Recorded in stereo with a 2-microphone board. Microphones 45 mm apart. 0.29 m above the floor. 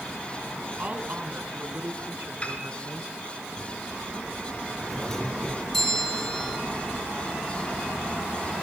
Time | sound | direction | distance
0.8 | a woman speaking | 30° right (ahead or behind) | 3.5 m
2.4 | a piano | 30° left (ahead or behind) | 5.5 m
4.9 | a doorbell | 10° left (ahead or behind) | 9.5 m